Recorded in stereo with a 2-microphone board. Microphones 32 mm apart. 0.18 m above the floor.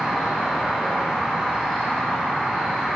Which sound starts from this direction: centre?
An insect, at 0.0 s.